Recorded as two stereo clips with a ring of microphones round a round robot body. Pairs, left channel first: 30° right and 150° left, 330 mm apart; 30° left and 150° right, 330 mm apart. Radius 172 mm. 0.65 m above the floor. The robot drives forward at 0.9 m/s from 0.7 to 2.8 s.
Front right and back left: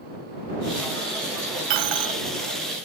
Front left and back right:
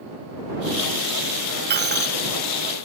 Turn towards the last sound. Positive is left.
turn(degrees=150)